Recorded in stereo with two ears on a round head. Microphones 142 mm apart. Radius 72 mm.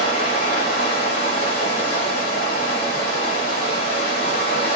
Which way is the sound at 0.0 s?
35° left (ahead or behind).